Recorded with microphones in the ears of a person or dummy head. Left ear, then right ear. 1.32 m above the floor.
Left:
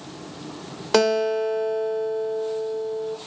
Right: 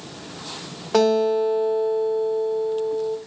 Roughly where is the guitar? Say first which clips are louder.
Right 1 dB; left.